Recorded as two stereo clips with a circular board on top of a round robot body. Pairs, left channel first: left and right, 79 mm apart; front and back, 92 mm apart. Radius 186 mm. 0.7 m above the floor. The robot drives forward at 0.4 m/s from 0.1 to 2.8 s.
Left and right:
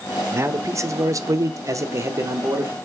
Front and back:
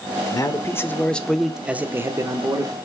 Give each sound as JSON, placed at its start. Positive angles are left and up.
{"t": 0.3, "sound": "a man speaking", "azimuth_deg": -40, "distance_m": 0.8}